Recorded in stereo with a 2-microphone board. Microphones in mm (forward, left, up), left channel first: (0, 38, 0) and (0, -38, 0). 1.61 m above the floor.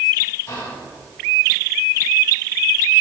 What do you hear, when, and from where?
0.5 s whispering: 55° left (ahead or behind), 2.5 m